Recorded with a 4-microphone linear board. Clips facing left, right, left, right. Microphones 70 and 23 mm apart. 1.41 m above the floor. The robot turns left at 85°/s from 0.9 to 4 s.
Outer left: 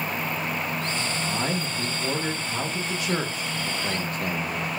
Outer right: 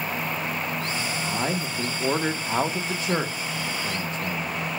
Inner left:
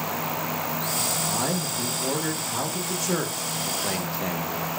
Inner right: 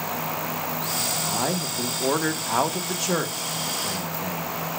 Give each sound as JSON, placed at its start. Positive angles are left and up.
{"t": 1.3, "sound": "a man speaking", "azimuth_deg": 0, "distance_m": 1.1}